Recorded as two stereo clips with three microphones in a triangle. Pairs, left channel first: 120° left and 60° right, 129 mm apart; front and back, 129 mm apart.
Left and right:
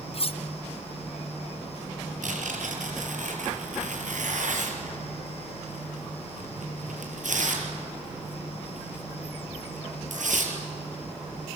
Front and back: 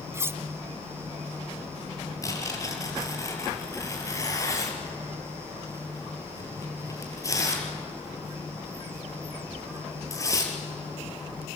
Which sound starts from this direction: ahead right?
Tearing paper, at 2.2 s.